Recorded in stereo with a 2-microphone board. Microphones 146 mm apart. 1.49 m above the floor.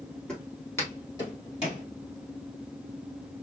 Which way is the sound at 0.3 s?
5° left (ahead or behind).